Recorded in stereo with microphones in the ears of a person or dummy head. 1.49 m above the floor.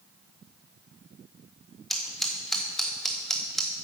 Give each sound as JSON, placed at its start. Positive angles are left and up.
{"t": 1.9, "sound": "scissors", "side_deg": 0, "distance_m": 0.8}